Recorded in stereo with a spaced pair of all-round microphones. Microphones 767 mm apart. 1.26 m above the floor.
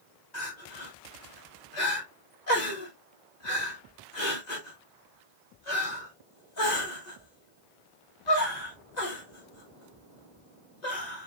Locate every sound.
0.3 s crying: 60° left (ahead or behind), 1.7 m